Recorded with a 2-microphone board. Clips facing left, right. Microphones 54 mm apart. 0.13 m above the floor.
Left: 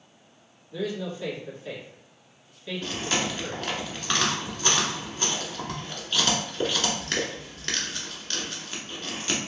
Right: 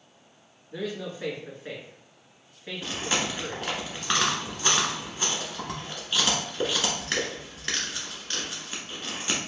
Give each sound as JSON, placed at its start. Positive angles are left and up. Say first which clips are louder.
{"t": 0.7, "sound": "a man speaking", "louder": "left 2 dB", "side_deg": -40, "distance_m": 1.5}
{"t": 2.8, "sound": "chewing", "louder": "even", "side_deg": -10, "distance_m": 0.9}